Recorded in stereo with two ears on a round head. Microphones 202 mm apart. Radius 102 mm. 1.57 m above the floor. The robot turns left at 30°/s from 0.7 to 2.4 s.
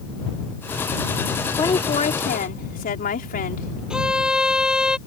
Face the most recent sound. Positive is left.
turn(degrees=-5)  # may be behind; listen again after turning